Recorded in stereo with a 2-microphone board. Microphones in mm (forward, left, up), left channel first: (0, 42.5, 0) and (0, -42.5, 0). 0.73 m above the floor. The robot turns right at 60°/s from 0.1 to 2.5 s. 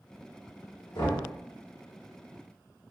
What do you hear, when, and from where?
0.9 s knocking: 65° left (ahead or behind), 1.8 m; by 1.3 s 50° left (ahead or behind), 1.8 m